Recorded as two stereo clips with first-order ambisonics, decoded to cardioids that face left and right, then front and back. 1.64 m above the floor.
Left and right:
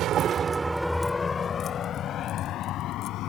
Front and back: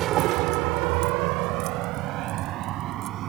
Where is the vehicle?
135° right; by 3.3 s 135° left.